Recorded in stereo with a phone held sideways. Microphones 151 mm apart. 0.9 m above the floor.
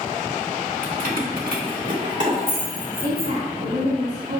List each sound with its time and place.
0.8 s keys jangling: 55° right (ahead or behind), 1.5 m; by 3.3 s 35° right (ahead or behind), 3.5 m
3.0 s a woman speaking: 60° right (ahead or behind), 2 m